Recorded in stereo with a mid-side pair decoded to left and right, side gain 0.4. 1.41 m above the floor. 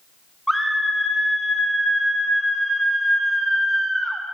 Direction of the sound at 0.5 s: Straight ahead.